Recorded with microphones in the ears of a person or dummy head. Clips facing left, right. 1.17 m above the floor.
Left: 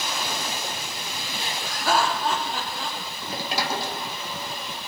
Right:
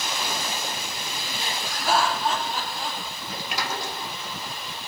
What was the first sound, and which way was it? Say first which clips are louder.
Laughter: even; 60° left (ahead or behind).